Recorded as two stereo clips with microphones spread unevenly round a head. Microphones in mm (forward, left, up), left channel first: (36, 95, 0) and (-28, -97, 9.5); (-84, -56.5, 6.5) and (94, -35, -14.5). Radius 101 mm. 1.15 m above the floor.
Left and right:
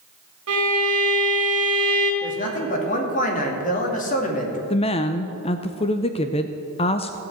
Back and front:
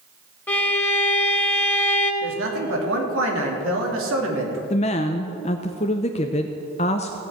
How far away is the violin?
About 2.5 m.